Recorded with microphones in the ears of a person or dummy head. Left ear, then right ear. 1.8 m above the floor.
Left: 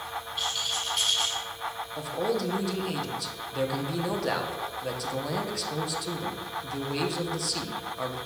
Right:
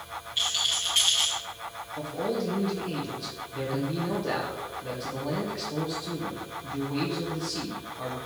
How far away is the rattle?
About 0.7 m.